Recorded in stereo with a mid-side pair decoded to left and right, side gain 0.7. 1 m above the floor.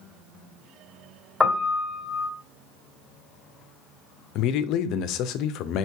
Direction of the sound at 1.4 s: 10° left.